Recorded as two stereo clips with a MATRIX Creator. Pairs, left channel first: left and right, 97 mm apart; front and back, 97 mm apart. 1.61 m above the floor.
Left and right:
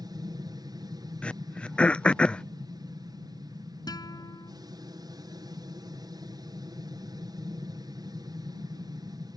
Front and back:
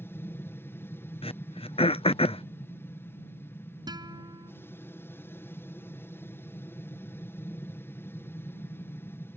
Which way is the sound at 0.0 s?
60° right.